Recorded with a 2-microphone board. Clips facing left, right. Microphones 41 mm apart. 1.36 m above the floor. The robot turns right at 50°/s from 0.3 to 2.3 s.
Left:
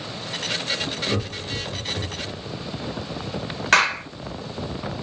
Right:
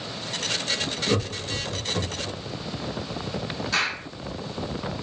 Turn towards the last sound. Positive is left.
turn(degrees=65)  # may be behind; listen again after turning